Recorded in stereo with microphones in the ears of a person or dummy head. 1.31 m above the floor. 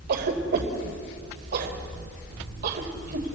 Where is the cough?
55° right (ahead or behind), 4.5 m.